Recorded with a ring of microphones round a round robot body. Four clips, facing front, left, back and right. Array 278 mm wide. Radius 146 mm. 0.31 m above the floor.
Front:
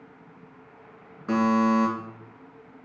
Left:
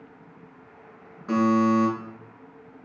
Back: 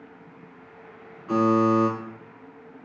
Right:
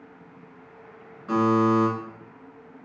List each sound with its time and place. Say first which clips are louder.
1.3 s a buzzer: even, back 2 dB; 5° left, 4.5 m